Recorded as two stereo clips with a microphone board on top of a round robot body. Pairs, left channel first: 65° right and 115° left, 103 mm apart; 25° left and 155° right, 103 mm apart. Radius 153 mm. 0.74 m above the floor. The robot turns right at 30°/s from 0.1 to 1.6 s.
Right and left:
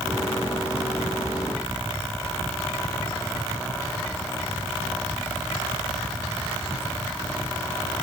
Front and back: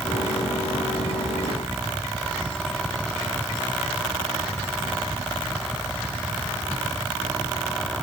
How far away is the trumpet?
No trumpet in this recording.